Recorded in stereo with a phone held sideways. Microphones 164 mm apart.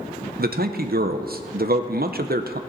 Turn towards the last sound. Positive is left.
turn(degrees=-70)  # may be behind; listen again after turning